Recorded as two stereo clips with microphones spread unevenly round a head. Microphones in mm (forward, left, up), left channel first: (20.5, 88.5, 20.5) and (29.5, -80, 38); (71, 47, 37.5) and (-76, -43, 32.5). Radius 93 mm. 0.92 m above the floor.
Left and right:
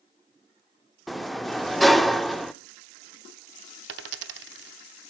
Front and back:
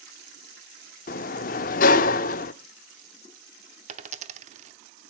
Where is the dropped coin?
95° right, 0.7 m.